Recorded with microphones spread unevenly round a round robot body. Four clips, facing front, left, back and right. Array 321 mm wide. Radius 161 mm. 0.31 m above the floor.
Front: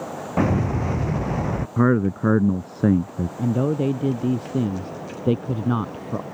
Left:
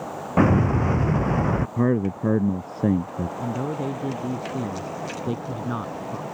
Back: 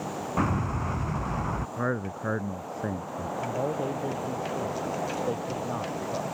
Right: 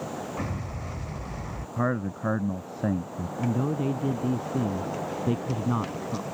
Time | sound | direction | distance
0.4 | an explosion | 70° left | ?
1.8 | a man speaking | 20° left | ?
3.4 | a man speaking | 10° right | ?